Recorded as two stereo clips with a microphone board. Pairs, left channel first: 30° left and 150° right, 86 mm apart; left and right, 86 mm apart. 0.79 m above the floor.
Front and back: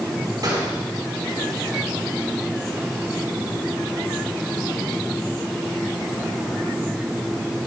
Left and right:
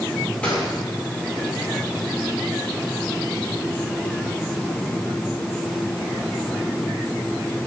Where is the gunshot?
165° left, 4.5 m.